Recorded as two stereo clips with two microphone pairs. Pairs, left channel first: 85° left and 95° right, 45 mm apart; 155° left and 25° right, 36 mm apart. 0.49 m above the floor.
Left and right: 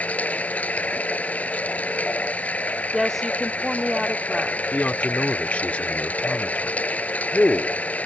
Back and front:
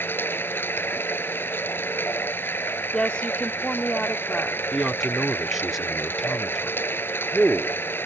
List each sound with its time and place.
0.0 s running water: 140° left
2.9 s a woman speaking: 165° left
4.7 s a man speaking: 60° left